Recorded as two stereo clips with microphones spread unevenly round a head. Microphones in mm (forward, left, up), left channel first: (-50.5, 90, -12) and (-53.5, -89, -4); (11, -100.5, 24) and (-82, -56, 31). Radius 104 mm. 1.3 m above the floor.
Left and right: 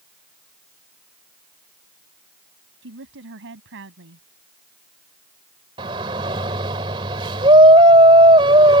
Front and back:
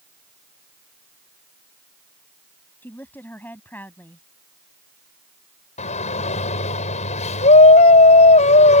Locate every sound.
2.8 s a woman speaking: 100° right
5.8 s a shout: 25° right